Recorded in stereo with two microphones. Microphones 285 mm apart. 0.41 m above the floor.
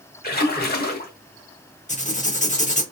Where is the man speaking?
No man speaking in this recording.